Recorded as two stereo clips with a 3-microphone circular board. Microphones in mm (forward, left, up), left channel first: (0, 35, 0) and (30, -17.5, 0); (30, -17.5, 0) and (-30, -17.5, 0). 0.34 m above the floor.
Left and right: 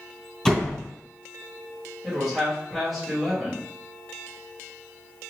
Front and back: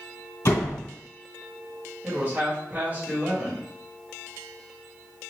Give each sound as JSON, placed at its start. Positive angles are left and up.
{"t": 0.5, "sound": "a door slam", "azimuth_deg": 40, "distance_m": 2.0}
{"t": 2.0, "sound": "a man speaking", "azimuth_deg": -145, "distance_m": 1.9}